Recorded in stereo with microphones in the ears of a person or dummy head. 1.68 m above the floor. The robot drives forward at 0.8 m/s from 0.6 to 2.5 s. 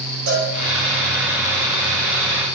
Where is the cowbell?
80° right, 6 m.